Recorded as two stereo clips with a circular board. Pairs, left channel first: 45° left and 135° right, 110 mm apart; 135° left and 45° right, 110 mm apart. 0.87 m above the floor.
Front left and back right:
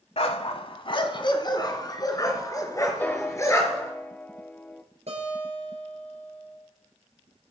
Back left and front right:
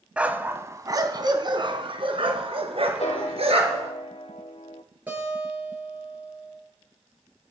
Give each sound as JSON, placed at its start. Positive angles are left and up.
{"t": 0.2, "sound": "a dog barking", "azimuth_deg": 35, "distance_m": 1.3}
{"t": 3.0, "sound": "a piano", "azimuth_deg": 120, "distance_m": 1.4}
{"t": 5.1, "sound": "a guitar", "azimuth_deg": -120, "distance_m": 8.5}